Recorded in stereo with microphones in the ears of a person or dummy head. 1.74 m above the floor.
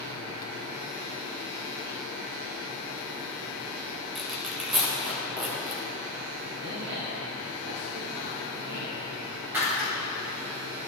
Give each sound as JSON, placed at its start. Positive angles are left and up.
{"t": 4.2, "sound": "tearing paper", "side_deg": 0, "distance_m": 1.5}
{"t": 6.6, "sound": "a man speaking", "side_deg": -60, "distance_m": 1.2}
{"t": 9.5, "sound": "breaking glass", "side_deg": -10, "distance_m": 2.0}